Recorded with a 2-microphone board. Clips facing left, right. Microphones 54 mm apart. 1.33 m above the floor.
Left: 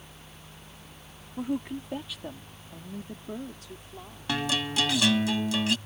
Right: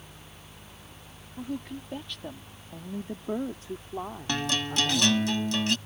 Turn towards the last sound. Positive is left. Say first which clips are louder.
# left 1 dB
turn(degrees=5)  # may be behind; listen again after turning